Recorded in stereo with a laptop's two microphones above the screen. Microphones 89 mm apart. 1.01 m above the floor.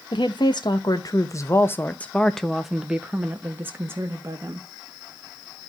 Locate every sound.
0.1 s a woman speaking: 65° left (ahead or behind), 1.3 m; by 4.7 s 35° right (ahead or behind), 1.8 m